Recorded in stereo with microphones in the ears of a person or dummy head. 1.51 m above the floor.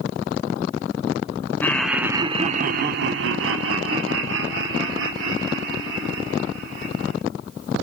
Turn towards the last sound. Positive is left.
turn(degrees=-75)  # may be behind; listen again after turning